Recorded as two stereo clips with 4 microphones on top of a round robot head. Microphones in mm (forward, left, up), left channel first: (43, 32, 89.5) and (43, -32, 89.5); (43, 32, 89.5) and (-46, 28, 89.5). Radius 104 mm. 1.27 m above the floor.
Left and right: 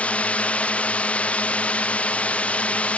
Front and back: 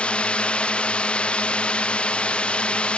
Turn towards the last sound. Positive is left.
turn(degrees=60)